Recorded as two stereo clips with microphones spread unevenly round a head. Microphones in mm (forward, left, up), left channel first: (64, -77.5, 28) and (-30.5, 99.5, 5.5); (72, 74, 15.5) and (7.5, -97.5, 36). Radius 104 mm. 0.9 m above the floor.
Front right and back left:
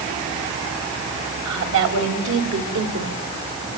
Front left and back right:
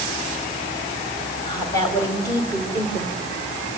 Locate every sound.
1.4 s a woman speaking: 145° left, 4.5 m; by 3.2 s 150° left, 3 m